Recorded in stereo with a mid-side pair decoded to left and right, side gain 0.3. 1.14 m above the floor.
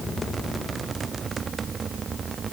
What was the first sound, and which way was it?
Only background noise.